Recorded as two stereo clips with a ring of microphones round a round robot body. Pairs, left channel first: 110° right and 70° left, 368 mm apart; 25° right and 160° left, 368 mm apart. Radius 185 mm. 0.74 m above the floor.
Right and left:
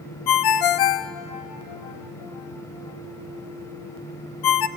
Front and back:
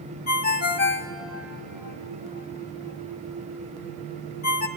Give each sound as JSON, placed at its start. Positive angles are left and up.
{"t": 0.3, "sound": "a ringtone", "azimuth_deg": -85, "distance_m": 0.5}